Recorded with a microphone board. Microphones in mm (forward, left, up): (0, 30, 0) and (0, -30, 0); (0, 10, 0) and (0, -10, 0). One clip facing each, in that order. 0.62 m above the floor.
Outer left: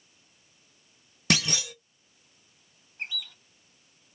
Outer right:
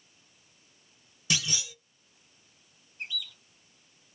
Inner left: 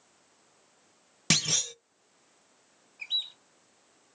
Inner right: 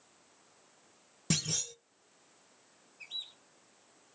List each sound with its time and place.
1.3 s a clunk: 55° left (ahead or behind), 0.5 m
3.0 s a bird: 45° left (ahead or behind), 1.2 m